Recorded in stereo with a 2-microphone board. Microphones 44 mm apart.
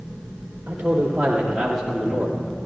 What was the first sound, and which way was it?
A man speaking, 30° right (ahead or behind).